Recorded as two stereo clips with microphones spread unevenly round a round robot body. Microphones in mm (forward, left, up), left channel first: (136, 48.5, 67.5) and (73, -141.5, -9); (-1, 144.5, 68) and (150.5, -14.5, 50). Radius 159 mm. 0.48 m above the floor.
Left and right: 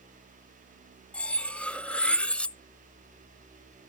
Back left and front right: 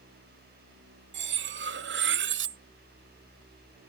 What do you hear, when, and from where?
1.1 s cutlery clinking: 25° right, 0.6 m